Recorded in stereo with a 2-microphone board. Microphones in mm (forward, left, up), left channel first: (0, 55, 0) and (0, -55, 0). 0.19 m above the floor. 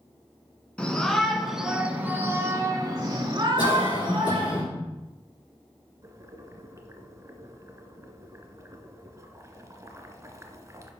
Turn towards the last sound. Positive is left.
turn(degrees=-30)  # may be behind; listen again after turning